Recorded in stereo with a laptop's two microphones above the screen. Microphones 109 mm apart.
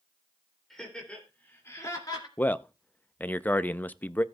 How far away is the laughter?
About 3 m.